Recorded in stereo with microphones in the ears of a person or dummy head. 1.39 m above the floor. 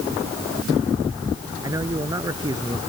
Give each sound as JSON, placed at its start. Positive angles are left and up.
{"t": 1.6, "sound": "a man speaking", "side_deg": -15}